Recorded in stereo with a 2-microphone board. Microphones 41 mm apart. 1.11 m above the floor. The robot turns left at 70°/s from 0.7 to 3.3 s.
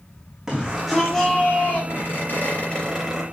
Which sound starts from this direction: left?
A squeak, at 1.9 s.